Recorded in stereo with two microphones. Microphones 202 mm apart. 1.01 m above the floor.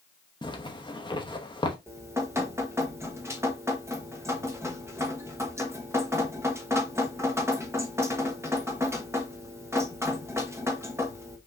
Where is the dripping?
15° right (ahead or behind), 1.1 m.